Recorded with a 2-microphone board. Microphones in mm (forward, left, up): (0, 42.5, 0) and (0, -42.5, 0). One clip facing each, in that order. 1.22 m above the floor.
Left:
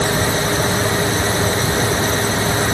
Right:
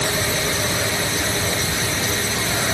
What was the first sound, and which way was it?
Only background noise.